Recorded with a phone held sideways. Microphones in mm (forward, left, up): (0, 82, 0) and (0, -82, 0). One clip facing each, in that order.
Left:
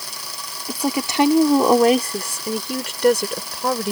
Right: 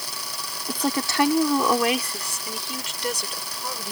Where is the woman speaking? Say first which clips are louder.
Left 3 dB; 5° left (ahead or behind); by 3.9 s 70° left (ahead or behind).